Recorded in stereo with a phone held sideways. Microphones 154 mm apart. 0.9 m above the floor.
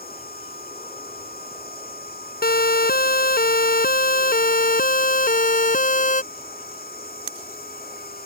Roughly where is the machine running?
Left.